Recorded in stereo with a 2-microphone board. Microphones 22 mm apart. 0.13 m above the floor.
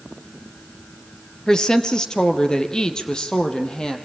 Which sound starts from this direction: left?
A woman speaking, at 1.5 s.